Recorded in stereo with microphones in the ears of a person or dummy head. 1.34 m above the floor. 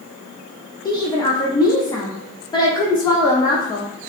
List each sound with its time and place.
0.8 s a woman speaking: 15° left (ahead or behind), 0.6 m